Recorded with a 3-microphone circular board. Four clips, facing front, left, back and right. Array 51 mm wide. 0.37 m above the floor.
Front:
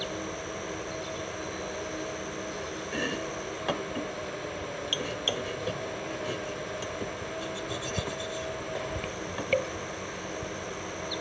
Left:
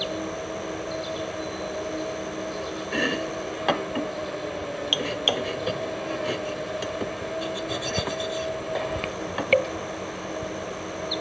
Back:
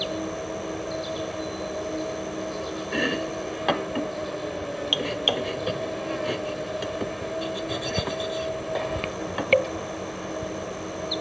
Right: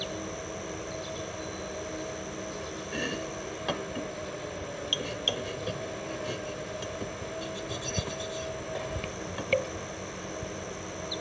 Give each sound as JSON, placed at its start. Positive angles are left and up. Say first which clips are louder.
{"t": 0.0, "sound": "an insect", "louder": "left 6 dB, back 5 dB", "azimuth_deg": 130}
{"t": 2.9, "sound": "chopping", "louder": "left 8 dB, back 7 dB", "azimuth_deg": 125}